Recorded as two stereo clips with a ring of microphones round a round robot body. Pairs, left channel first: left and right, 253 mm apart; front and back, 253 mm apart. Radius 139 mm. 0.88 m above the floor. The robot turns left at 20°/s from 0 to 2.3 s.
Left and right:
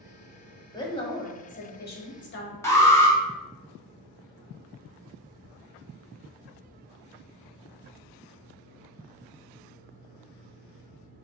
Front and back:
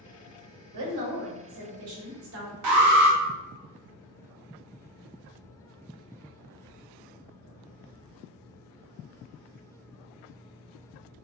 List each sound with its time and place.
0.7 s a woman speaking: 165° left, 1.4 m; by 2.5 s 135° left, 1.4 m
2.6 s an alarm: 170° left, 1.2 m